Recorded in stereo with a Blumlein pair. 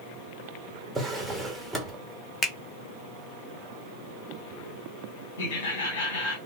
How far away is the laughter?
About 1.5 m.